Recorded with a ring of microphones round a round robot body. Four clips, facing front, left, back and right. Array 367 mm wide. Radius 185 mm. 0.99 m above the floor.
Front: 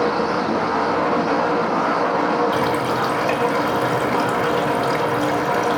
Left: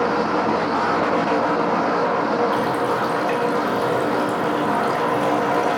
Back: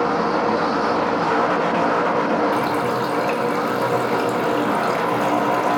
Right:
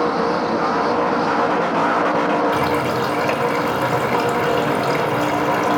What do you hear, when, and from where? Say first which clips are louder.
2.5 s a running tap: right 1 dB, front 1 dB; 65° right, 3 m